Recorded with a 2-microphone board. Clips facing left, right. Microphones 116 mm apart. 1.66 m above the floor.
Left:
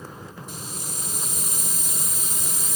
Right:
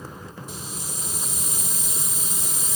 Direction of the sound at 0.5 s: 55° left (ahead or behind).